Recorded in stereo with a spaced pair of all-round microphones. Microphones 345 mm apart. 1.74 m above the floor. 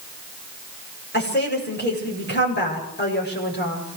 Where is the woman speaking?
30° left (ahead or behind), 8 m.